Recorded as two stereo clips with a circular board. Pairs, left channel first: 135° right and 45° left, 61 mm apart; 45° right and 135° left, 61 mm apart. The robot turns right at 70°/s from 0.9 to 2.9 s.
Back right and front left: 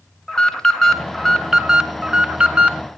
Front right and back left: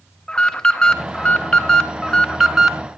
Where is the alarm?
70° right, 1.5 m; by 2.8 s 60° left, 1.5 m.